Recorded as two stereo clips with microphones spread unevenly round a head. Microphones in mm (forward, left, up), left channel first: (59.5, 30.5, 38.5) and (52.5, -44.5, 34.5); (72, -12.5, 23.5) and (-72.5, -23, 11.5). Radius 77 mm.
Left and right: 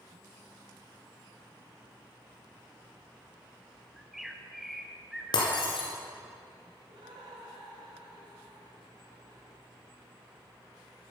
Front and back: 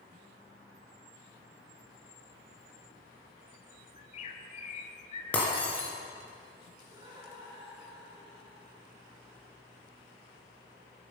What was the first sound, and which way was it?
A bird, 10° right.